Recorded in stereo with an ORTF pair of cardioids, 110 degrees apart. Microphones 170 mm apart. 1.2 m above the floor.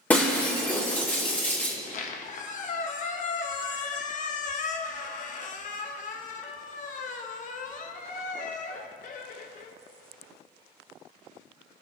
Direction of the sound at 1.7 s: 50° left.